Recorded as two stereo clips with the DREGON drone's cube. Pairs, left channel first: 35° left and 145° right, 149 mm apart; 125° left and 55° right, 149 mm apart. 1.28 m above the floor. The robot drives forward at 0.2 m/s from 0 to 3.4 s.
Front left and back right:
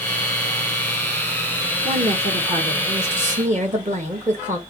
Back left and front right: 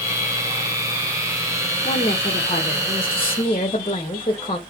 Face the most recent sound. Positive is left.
turn(degrees=180)